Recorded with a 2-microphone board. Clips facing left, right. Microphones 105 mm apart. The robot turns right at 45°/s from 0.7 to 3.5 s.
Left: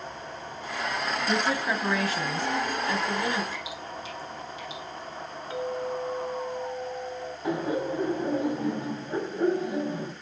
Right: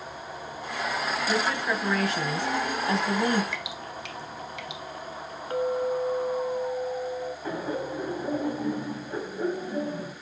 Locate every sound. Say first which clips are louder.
1.3 s a woman speaking: left 1 dB; 145° left, 2 m; by 3.4 s 120° right, 2 m
3.5 s dripping: even; 75° right (ahead or behind), 1.5 m
5.5 s a clink: right 5 dB; 40° right (ahead or behind), 0.9 m
7.4 s laughter: left 6 dB; 15° left (ahead or behind), 2 m